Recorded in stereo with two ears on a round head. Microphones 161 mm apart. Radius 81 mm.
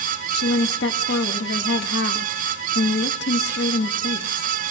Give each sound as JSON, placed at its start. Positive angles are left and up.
{"t": 0.3, "sound": "a woman speaking", "side_deg": 60, "distance_m": 1.8}